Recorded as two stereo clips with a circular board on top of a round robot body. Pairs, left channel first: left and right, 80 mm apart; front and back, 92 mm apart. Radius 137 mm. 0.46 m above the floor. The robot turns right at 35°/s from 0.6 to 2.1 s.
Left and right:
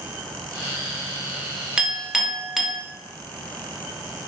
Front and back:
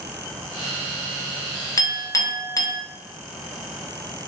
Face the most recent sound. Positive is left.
turn(degrees=-5)